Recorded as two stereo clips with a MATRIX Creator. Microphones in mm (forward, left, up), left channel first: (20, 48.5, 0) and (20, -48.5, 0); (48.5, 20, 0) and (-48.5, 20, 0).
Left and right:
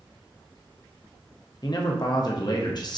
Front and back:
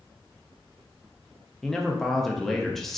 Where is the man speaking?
85° left, 0.5 m.